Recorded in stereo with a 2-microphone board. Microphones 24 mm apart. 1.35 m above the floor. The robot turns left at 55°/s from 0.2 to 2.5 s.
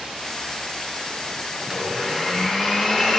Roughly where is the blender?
Behind right.